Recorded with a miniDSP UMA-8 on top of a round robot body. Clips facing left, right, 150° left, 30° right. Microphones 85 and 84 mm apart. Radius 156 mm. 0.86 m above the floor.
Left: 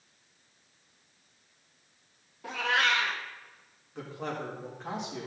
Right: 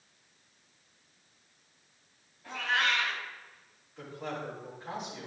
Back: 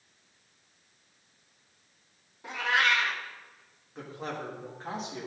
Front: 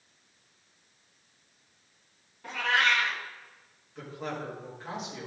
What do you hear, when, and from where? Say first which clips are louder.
2.4 s a cat meowing: left 3 dB, even; 75° left, 1.4 m
4.0 s a man speaking: left 2 dB, front 1 dB; 100° left, 3.5 m